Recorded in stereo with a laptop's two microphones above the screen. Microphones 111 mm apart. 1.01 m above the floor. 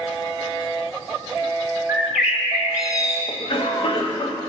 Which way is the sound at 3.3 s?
50° left (ahead or behind).